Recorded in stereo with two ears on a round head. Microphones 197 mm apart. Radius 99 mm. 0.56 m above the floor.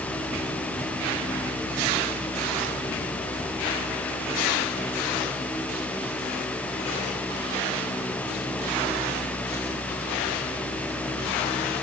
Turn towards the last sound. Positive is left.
No sound to turn to.